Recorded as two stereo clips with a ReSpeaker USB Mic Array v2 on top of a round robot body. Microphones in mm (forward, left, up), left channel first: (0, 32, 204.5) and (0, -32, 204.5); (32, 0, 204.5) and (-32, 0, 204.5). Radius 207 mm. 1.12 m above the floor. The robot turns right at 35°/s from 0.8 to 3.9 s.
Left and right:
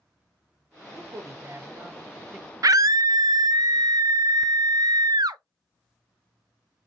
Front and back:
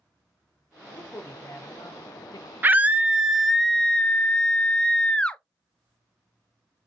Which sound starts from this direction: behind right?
A scream, at 2.6 s.